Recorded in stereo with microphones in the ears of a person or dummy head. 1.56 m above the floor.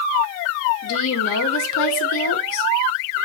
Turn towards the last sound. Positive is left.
turn(degrees=70)  # may be behind; listen again after turning